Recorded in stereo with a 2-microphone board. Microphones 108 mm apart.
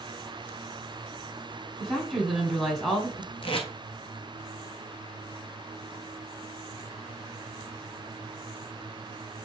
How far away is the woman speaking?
About 1.4 m.